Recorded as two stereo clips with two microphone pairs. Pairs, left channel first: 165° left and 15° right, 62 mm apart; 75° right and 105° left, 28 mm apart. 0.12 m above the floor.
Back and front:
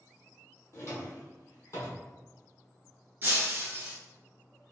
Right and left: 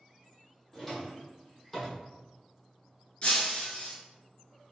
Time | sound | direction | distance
0.7 | a drawer | 155° right | 1.2 m
3.2 | breaking glass | 55° right | 1.0 m